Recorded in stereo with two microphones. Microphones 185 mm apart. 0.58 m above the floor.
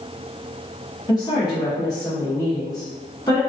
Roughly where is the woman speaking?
Left.